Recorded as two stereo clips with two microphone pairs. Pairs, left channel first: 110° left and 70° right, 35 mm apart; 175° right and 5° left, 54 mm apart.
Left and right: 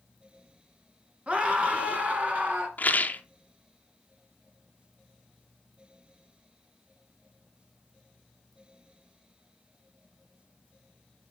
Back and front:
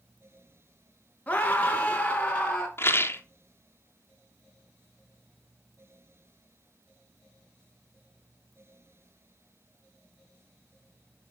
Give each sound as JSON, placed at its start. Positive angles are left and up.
{"t": 1.3, "sound": "a scream", "azimuth_deg": -115, "distance_m": 2.0}
{"t": 2.8, "sound": "a rattle", "azimuth_deg": 145, "distance_m": 0.8}